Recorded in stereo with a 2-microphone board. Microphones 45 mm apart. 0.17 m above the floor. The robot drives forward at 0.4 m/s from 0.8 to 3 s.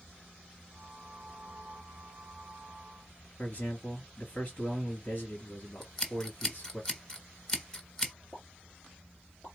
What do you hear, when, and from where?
3.4 s a man speaking: 35° left (ahead or behind), 2.5 m
5.8 s scissors: 10° left (ahead or behind), 1.3 m
8.3 s a pop: 30° left (ahead or behind), 2 m